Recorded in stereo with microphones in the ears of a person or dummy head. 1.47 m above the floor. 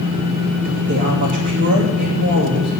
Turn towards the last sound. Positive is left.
turn(degrees=-60)  # may be behind; listen again after turning